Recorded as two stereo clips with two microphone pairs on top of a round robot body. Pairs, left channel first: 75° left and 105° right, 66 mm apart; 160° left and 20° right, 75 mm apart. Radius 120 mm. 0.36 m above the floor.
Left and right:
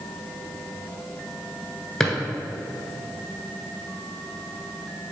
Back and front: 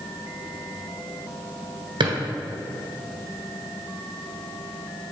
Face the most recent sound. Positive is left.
turn(degrees=-10)